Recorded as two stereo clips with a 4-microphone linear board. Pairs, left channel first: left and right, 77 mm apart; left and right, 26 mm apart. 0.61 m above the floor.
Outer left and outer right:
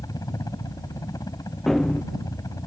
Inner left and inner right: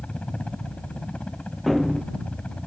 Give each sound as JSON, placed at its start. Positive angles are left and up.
{"t": 0.0, "sound": "a helicopter", "side_deg": 50}
{"t": 1.7, "sound": "running footsteps", "side_deg": 5}